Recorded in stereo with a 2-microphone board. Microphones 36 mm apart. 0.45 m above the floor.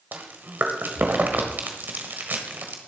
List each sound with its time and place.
0.1 s chewing: 60° right (ahead or behind), 1.2 m